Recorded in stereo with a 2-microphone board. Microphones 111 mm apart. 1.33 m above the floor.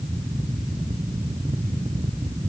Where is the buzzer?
No buzzer in this recording.